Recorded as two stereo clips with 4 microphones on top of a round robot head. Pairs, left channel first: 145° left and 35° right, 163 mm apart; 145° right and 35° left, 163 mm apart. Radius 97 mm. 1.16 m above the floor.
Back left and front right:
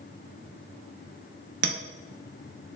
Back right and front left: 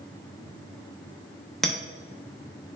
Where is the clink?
60° right, 0.7 m.